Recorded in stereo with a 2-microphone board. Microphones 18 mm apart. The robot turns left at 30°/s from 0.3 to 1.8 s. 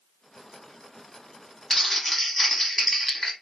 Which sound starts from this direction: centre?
Crumpling, at 1.7 s.